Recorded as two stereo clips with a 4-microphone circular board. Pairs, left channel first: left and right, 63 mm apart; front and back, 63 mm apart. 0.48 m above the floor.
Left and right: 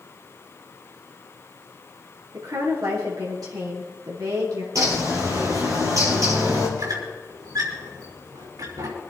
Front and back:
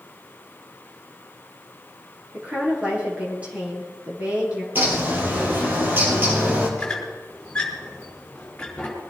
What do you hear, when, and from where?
2.3 s a woman speaking: 110° right, 7.5 m
4.8 s a bird: 120° right, 5.5 m
6.8 s a squeak: 75° right, 5.5 m